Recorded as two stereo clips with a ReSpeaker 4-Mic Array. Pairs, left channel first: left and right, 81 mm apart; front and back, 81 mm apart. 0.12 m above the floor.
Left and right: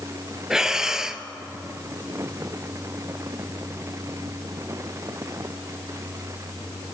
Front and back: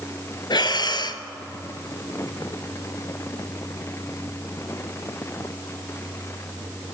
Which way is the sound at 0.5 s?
5° right.